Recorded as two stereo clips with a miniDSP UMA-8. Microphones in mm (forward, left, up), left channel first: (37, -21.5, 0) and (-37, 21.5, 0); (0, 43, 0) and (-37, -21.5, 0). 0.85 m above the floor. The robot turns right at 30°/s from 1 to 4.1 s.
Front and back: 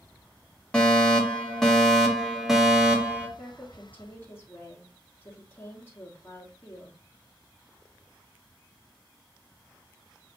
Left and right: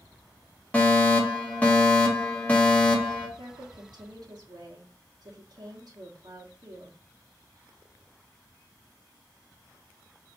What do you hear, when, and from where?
0.7 s a fire alarm: 30° left, 1.5 m; by 3.3 s 95° left, 1.5 m
3.4 s a woman speaking: 120° right, 1.4 m; by 7.0 s 95° right, 1.4 m